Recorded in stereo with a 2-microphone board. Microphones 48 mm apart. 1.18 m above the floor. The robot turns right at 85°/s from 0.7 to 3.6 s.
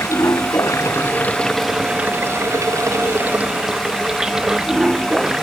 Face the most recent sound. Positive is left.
turn(degrees=-15)